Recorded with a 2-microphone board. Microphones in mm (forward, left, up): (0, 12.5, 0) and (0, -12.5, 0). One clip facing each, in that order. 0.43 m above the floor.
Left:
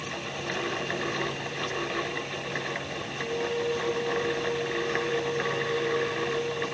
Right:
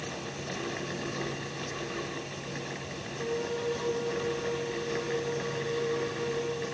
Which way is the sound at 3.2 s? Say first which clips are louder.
Left 3 dB; 5° left (ahead or behind).